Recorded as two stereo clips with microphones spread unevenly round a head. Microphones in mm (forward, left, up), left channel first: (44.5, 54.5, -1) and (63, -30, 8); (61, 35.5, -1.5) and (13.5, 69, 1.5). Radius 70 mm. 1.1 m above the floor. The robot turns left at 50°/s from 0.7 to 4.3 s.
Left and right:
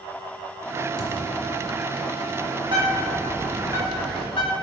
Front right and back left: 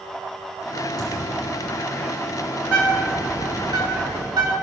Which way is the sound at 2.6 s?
135° right.